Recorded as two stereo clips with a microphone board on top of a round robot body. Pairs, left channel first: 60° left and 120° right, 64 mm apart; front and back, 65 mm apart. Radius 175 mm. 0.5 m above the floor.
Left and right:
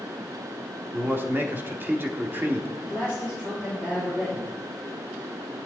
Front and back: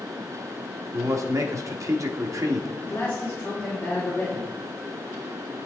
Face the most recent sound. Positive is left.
turn(degrees=-70)